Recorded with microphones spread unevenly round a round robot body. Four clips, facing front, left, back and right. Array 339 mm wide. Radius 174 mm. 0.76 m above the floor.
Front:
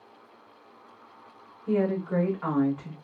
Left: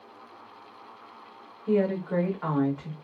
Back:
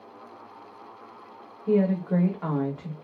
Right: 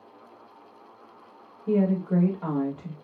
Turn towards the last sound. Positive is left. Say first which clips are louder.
# right 1 dB, back 3 dB
turn(degrees=-125)